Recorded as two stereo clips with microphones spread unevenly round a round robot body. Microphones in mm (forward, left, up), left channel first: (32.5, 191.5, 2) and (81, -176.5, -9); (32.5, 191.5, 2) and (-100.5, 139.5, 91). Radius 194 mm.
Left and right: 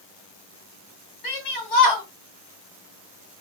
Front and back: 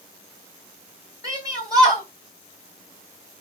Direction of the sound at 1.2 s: 125° left.